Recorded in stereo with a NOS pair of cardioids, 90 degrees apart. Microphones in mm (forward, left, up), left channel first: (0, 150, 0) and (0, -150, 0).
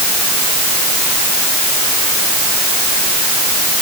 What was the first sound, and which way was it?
Only background noise.